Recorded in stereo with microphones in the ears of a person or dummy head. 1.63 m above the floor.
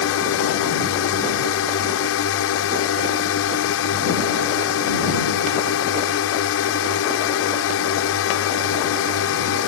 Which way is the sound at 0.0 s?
75° left (ahead or behind).